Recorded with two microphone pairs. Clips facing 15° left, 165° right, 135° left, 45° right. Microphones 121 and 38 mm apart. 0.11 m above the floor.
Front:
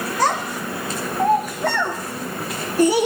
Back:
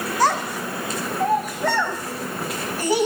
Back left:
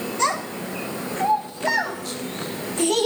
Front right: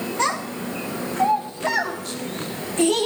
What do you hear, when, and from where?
0.2 s a child speaking: 10° left, 9 m; by 3.1 s 5° left, 6 m